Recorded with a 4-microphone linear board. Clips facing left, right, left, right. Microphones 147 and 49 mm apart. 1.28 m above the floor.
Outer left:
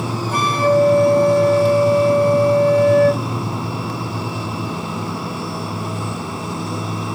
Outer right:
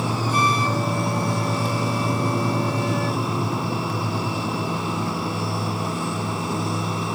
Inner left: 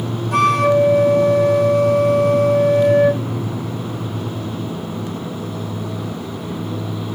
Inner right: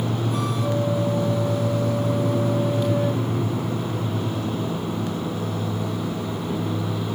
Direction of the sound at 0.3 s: 65° left (ahead or behind).